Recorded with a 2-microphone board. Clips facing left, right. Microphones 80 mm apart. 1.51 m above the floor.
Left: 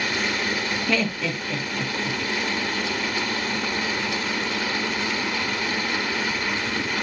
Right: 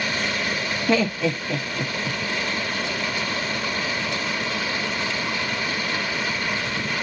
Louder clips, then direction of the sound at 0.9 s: Right 6 dB; 25° right (ahead or behind).